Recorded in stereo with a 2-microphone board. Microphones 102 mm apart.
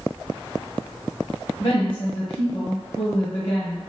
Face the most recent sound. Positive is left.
turn(degrees=60)  # may be behind; listen again after turning